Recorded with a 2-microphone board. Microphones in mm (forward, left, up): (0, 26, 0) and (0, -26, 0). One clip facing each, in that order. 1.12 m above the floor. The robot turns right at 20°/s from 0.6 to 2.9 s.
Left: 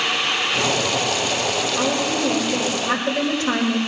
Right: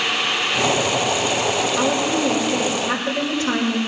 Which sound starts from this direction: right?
A woman speaking, at 1.8 s.